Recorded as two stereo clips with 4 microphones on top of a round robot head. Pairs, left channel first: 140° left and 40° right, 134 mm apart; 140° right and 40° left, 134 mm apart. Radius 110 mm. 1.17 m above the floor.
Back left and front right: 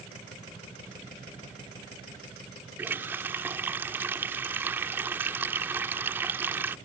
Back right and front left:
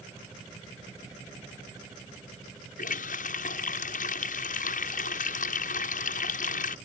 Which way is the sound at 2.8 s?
120° right.